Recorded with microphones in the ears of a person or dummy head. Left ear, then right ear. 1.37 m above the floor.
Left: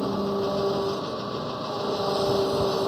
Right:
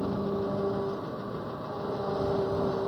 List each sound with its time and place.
0.0 s an engine running: 85° left